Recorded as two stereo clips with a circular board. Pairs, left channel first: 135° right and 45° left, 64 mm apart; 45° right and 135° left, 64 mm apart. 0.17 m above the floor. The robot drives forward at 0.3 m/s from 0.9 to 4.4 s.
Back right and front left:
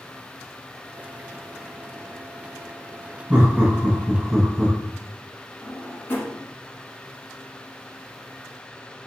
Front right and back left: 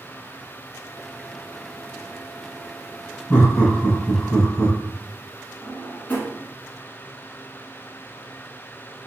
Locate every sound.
3.3 s laughter: 15° right, 1.5 m; by 4.8 s 20° right, 1.4 m
5.6 s a drawer: 100° right, 1.0 m